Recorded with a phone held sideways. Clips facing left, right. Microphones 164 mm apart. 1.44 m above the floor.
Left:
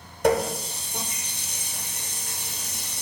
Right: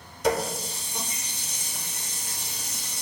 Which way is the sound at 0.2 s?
55° left (ahead or behind).